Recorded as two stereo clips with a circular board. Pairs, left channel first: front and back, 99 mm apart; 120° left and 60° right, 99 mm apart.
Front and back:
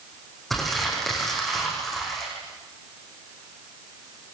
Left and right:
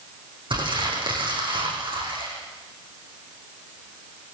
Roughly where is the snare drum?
I don't hear a snare drum.